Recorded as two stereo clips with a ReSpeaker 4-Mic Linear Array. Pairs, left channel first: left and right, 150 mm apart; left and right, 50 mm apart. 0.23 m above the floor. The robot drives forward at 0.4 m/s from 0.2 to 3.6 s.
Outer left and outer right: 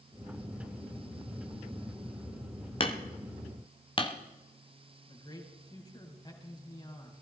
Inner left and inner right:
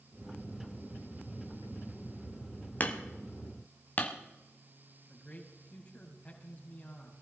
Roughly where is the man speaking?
Left.